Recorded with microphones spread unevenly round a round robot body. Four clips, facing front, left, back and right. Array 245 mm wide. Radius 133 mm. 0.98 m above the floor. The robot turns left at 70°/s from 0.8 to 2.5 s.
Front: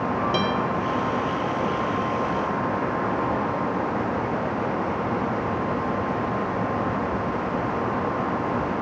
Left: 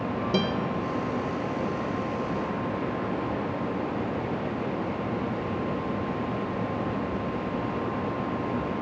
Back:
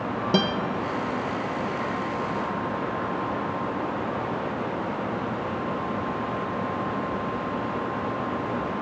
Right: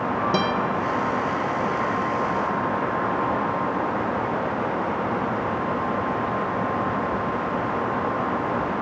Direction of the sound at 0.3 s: 160° right.